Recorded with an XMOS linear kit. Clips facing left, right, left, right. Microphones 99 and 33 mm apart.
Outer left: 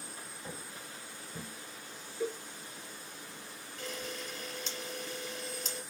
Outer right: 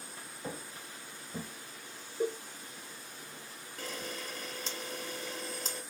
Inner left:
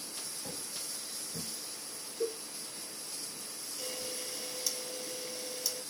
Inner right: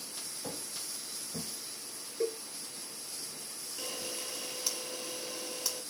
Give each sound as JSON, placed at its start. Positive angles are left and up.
{"t": 0.4, "sound": "footsteps", "side_deg": -40, "distance_m": 2.0}
{"t": 2.2, "sound": "a cowbell", "side_deg": -40, "distance_m": 1.4}
{"t": 3.8, "sound": "a camera shutter", "side_deg": -40, "distance_m": 3.0}